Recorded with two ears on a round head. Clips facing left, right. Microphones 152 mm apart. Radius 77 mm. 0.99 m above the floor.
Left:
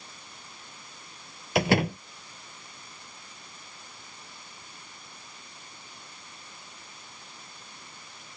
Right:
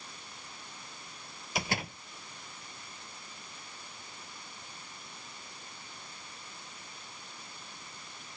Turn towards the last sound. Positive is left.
turn(degrees=55)  # may be behind; listen again after turning